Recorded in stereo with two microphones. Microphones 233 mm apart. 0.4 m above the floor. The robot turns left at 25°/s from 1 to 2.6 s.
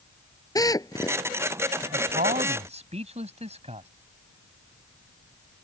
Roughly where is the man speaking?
Right.